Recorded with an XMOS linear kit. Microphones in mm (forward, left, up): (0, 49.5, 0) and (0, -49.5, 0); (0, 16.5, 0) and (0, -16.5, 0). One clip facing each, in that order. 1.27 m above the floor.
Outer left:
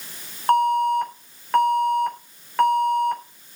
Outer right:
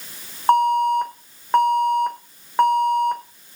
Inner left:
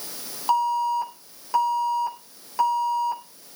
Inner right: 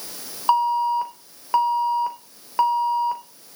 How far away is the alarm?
About 3.5 m.